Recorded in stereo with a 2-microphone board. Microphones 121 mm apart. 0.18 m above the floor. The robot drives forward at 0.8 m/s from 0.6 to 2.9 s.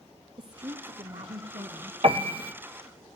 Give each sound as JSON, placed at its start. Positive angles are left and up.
{"t": 0.4, "sound": "a woman speaking", "side_deg": -40, "distance_m": 1.9}
{"t": 2.0, "sound": "a piano", "side_deg": -50, "distance_m": 1.5}